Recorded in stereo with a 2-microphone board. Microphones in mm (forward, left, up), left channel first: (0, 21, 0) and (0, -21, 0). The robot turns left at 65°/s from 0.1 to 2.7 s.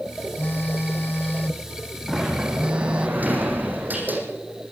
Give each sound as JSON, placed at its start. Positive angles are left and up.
{"t": 0.4, "sound": "a phone buzzing", "azimuth_deg": 120, "distance_m": 0.7}
{"t": 2.1, "sound": "a sliding door", "azimuth_deg": -5, "distance_m": 6.5}